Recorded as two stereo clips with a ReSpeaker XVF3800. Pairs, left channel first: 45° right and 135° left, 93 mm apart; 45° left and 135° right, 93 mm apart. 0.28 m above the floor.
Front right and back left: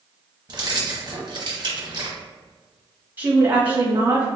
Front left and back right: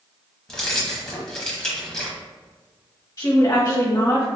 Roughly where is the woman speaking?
Left.